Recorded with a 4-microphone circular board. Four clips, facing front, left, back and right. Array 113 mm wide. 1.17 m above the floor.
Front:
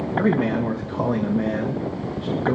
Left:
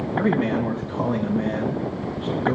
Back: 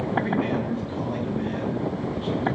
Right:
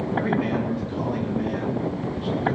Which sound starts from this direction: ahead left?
A man speaking, at 0.2 s.